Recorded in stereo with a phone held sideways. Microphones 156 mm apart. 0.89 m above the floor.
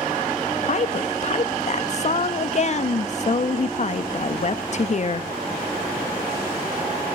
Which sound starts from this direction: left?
A woman speaking, at 0.7 s.